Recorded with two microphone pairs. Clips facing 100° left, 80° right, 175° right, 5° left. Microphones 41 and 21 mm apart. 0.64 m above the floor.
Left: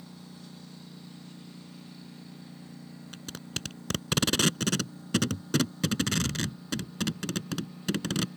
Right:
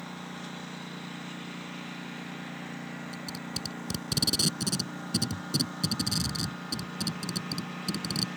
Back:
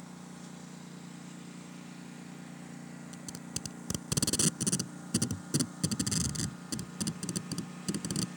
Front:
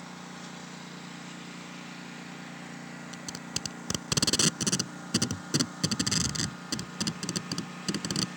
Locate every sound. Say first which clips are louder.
0.0 s a lawn mower: right 8 dB, front 5 dB; 45° right; by 8.4 s 55° right
3.1 s tape being pulled: right 2 dB, front 6 dB; 60° left